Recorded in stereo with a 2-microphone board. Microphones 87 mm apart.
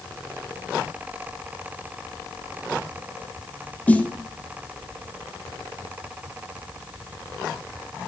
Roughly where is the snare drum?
Centre.